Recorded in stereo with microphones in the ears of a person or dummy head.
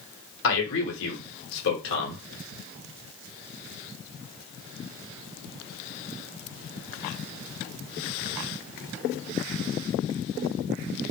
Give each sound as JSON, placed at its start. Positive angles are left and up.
{"t": 0.4, "sound": "a man speaking", "side_deg": 65, "distance_m": 1.1}